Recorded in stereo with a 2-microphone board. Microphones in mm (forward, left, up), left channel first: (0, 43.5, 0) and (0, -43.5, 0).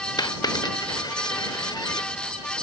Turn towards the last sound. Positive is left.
turn(degrees=50)  # may be behind; listen again after turning